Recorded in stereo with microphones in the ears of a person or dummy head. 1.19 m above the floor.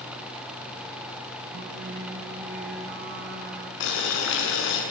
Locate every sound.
1.5 s singing: 55° right (ahead or behind), 2.5 m
3.8 s boiling: 70° left (ahead or behind), 7 m